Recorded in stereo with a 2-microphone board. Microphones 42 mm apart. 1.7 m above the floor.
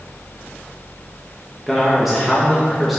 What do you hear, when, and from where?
1.7 s a man speaking: centre (ahead or behind), 2.5 m